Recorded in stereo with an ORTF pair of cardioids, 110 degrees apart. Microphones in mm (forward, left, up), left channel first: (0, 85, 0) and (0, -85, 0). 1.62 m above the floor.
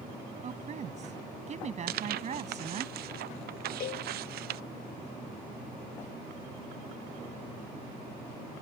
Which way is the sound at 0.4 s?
45° right.